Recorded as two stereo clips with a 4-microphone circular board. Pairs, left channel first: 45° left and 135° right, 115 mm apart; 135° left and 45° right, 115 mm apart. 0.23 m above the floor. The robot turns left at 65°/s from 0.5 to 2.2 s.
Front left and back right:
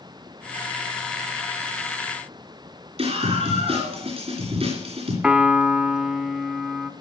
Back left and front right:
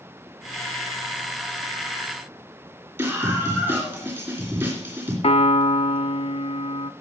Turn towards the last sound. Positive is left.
turn(degrees=145)